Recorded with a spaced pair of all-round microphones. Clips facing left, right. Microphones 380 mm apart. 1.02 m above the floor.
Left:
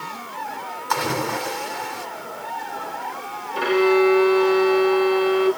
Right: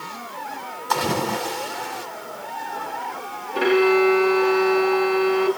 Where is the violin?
75° right (ahead or behind), 2.5 m.